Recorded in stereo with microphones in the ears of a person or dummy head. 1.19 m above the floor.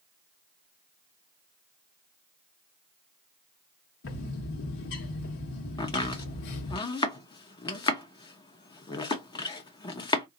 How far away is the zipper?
I don't hear a zipper.